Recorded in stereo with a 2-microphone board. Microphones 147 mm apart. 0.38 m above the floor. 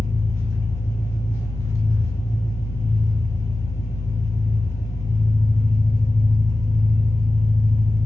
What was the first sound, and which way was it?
An engine running, 20° left (ahead or behind).